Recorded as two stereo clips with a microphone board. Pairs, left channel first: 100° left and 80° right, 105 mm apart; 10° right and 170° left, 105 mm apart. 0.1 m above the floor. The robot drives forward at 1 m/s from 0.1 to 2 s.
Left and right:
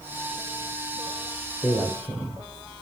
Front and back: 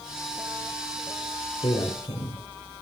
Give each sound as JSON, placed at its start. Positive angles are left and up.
{"t": 1.6, "sound": "a man speaking", "azimuth_deg": 25, "distance_m": 3.0}